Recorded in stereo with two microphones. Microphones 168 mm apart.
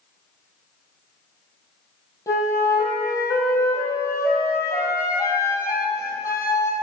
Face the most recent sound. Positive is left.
turn(degrees=20)  # may be behind; listen again after turning